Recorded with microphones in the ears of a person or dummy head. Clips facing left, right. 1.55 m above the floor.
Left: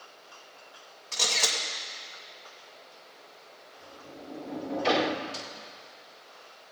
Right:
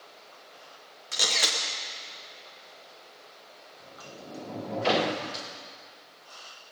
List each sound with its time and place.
1.1 s a camera shutter: 15° right (ahead or behind), 1.4 m
3.8 s a sliding door: centre (ahead or behind), 0.9 m
5.3 s a snare drum: 10° left (ahead or behind), 2 m